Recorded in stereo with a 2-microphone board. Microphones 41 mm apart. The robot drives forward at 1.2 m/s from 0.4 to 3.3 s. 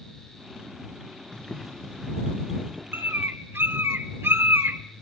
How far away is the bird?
About 1.1 m.